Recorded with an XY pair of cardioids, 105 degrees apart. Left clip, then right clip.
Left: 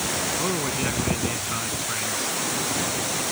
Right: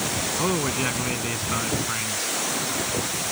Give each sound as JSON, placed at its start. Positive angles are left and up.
{"t": 0.4, "sound": "a man speaking", "azimuth_deg": -20}